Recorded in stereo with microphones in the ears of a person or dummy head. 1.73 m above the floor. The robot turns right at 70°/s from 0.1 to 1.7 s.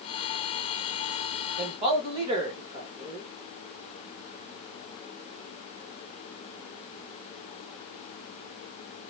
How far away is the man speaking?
About 1.3 m.